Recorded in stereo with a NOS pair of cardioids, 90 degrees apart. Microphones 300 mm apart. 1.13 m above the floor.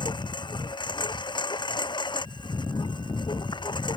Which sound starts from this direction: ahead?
A lawn mower, at 0.0 s.